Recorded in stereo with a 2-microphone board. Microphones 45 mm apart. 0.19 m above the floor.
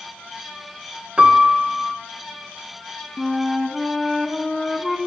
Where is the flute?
5° left (ahead or behind), 0.6 m.